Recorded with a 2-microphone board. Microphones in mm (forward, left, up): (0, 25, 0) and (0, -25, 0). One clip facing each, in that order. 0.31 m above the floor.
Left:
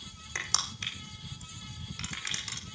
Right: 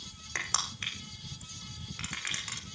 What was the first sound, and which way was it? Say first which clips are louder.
Crushing: right 1 dB; 25° right (ahead or behind).